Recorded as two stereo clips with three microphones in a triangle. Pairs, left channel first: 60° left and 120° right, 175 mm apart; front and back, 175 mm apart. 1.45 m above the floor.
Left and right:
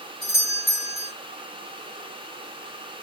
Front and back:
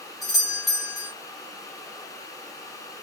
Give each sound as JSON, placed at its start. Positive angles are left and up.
{"t": 0.2, "sound": "a doorbell", "azimuth_deg": 90, "distance_m": 1.6}